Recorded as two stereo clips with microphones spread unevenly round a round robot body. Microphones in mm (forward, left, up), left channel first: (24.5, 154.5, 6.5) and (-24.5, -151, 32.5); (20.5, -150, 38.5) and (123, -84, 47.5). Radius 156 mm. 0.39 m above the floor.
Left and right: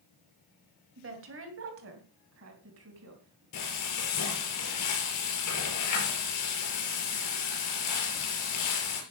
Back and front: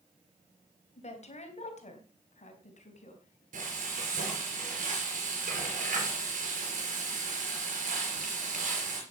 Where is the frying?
45° left, 5 m.